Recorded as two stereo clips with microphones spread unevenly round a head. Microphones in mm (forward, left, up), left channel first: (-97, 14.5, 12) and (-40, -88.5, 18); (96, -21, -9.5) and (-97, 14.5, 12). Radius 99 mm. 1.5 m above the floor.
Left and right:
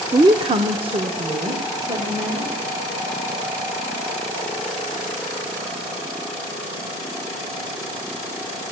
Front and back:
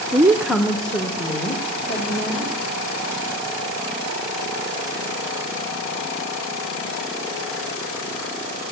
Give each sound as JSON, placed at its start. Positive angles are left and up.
{"t": 0.1, "sound": "a woman speaking", "azimuth_deg": -120, "distance_m": 0.6}